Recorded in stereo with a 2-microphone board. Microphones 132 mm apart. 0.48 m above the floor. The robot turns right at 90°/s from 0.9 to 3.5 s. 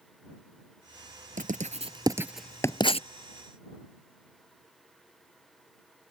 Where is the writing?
80° right; by 3.1 s 60° left (ahead or behind).